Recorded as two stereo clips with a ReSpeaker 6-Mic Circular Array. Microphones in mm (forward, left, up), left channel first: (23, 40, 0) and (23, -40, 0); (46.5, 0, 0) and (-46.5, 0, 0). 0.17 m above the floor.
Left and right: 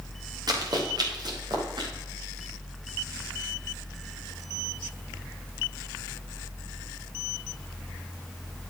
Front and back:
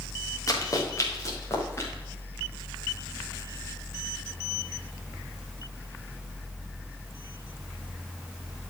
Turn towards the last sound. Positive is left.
turn(degrees=-65)